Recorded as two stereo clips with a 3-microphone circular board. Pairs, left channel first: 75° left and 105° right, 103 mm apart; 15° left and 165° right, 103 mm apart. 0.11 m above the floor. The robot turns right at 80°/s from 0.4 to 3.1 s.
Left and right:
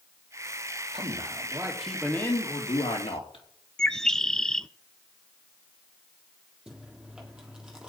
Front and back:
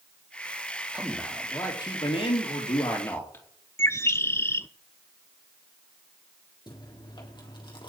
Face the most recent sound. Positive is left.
turn(degrees=-25)